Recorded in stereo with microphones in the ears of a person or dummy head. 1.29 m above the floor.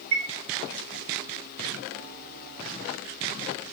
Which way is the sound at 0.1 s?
75° right (ahead or behind).